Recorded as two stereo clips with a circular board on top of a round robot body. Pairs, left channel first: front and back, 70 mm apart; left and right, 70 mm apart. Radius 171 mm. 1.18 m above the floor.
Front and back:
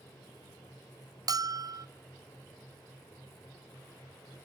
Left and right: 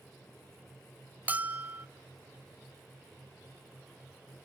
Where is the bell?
155° right, 1.2 m.